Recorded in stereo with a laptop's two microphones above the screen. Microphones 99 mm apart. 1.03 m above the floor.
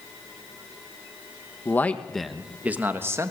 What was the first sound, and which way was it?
A man speaking, 20° left (ahead or behind).